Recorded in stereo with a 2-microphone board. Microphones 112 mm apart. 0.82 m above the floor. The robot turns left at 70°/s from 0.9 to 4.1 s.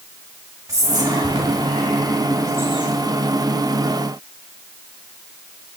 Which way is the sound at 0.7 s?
30° right (ahead or behind).